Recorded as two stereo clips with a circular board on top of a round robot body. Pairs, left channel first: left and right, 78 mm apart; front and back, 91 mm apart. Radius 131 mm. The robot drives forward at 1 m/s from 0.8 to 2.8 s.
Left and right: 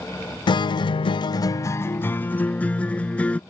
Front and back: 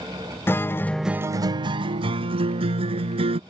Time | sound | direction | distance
0.5 | a guitar | 65° left | ?